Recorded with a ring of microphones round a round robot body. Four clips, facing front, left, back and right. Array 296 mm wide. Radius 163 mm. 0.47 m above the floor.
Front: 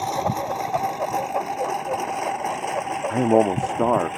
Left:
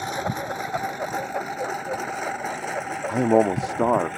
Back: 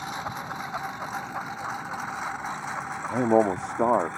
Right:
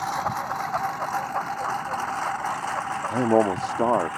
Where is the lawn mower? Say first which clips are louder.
Right 1 dB, front 10 dB; 30° left; by 4.2 s 35° left.